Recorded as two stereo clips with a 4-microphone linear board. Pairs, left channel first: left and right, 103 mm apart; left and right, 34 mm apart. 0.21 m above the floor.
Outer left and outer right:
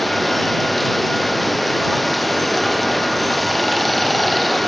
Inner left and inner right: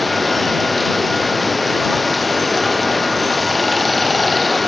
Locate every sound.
0.0 s running water: centre (ahead or behind)